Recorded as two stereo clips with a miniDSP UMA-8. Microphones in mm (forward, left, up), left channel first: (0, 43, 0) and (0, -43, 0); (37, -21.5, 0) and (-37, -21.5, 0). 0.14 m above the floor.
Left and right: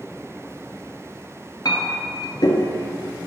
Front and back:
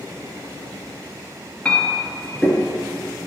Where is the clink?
75° left, 1.1 m.